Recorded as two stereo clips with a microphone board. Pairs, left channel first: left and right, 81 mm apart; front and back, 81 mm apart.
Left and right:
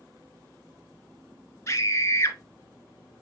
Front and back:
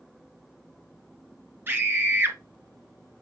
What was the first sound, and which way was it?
A scream, 130° left.